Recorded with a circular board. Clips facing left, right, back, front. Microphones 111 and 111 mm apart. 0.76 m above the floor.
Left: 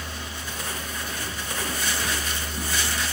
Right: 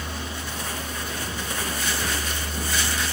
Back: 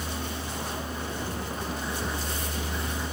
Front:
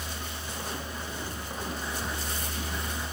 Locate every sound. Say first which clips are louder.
0.0 s a vehicle: right 3 dB, back 5 dB; 145° right